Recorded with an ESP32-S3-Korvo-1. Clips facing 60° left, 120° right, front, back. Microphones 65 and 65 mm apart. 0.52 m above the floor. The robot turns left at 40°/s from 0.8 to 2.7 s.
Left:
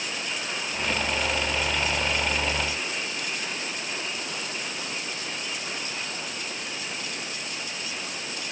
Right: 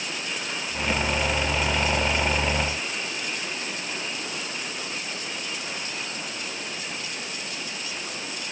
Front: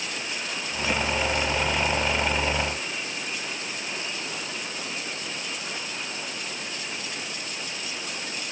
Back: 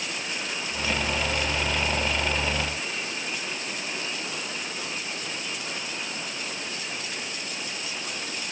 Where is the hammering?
I don't hear hammering.